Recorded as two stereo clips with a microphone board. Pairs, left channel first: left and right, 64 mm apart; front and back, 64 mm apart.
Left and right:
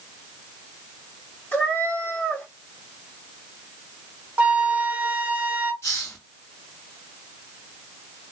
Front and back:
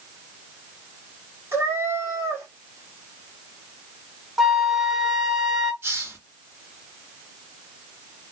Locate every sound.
1.5 s a cat meowing: 145° left, 1.4 m
4.4 s a flute: 105° right, 0.7 m
5.8 s a hiss: 130° left, 1.9 m